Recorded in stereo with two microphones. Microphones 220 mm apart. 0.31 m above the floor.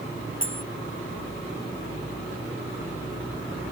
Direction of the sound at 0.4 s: 60° left (ahead or behind).